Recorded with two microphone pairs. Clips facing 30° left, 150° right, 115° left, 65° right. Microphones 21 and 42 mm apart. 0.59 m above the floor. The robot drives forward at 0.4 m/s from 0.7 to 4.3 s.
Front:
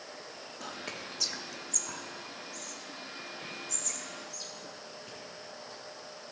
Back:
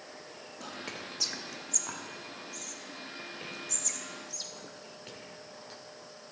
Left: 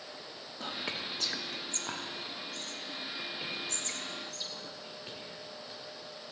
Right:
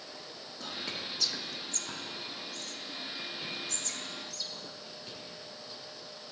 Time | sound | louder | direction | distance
0.6 | whispering | even, left 2 dB | 95° left | 0.8 m